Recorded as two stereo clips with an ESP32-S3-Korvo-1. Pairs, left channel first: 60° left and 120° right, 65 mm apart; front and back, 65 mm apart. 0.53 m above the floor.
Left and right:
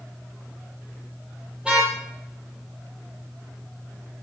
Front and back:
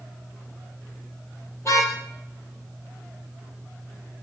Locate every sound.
1.6 s a car horn: 45° right, 9.5 m